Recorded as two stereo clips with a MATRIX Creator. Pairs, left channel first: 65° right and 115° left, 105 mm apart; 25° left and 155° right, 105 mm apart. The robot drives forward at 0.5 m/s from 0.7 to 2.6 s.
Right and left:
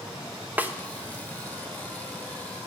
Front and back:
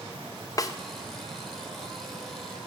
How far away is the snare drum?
About 0.6 m.